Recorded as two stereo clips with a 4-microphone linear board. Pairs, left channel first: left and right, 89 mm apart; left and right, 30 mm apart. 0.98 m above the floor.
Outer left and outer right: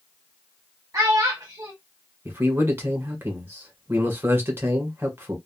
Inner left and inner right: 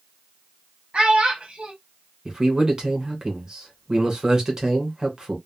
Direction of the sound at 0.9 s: 35° right (ahead or behind).